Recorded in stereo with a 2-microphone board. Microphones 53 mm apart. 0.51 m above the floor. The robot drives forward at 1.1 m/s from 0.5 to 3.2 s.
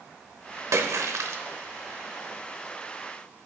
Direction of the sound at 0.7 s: 65° right (ahead or behind).